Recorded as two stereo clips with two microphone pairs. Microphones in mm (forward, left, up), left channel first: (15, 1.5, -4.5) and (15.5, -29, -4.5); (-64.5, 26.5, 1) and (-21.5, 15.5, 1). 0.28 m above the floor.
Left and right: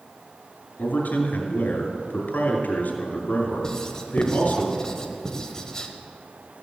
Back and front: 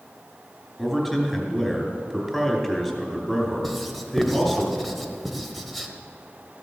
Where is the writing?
80° left, 1.1 m.